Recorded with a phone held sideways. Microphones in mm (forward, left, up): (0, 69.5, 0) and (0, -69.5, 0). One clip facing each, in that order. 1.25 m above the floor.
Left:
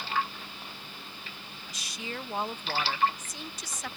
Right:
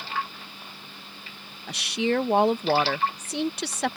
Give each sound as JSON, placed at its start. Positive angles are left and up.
{"t": 1.7, "sound": "a woman speaking", "side_deg": -70}